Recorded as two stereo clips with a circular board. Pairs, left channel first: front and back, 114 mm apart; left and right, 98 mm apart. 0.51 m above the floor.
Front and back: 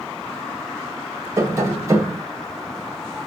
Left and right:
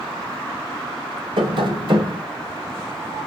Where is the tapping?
115° right, 1.8 m.